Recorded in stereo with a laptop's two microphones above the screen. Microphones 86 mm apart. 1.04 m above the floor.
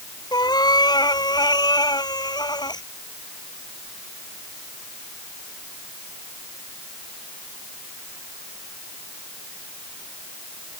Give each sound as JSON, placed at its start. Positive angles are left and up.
{"t": 0.3, "sound": "a cat meowing", "side_deg": 50}